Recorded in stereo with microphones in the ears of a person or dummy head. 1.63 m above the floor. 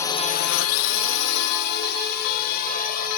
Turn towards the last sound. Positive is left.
turn(degrees=45)  # may be behind; listen again after turning